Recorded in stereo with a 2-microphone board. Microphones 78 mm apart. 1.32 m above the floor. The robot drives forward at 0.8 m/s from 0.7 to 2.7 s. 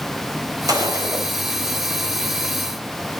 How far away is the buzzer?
No buzzer in this recording.